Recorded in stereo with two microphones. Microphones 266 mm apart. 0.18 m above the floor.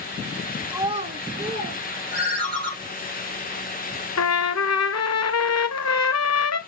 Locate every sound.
0.7 s a child speaking: 5° right (ahead or behind), 0.7 m; by 2.6 s 50° right (ahead or behind), 2.5 m
2.1 s a ringtone: 20° right (ahead or behind), 4 m
4.2 s a trumpet: 75° left (ahead or behind), 0.6 m